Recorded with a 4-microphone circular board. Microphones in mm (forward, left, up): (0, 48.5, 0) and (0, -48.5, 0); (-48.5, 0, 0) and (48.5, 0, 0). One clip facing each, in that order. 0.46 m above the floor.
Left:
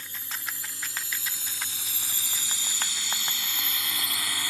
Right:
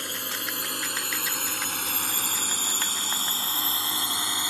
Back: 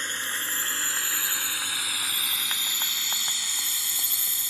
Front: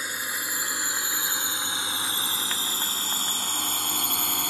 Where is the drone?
80° right; by 4.5 s 25° right.